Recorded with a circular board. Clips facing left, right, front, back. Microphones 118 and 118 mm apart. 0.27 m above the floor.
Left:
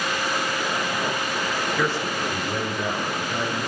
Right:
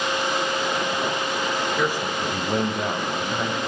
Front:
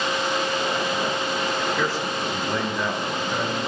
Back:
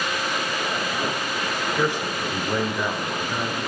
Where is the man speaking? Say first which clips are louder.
Right 1 dB, back 1 dB; 155° right, 0.9 m; by 3.6 s 95° right, 1.8 m.